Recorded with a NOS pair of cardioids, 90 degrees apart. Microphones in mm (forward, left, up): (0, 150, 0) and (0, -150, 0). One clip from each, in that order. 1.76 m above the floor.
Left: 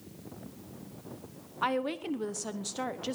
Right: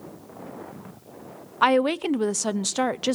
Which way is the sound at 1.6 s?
60° right.